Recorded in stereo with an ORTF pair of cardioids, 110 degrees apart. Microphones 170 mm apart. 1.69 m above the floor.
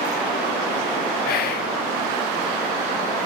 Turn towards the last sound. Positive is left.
turn(degrees=65)